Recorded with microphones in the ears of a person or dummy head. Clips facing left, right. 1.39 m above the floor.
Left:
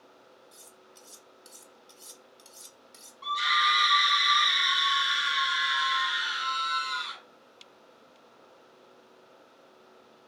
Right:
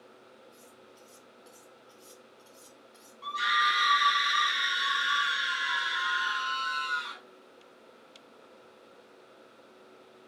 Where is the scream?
Centre (ahead or behind), 1.8 m.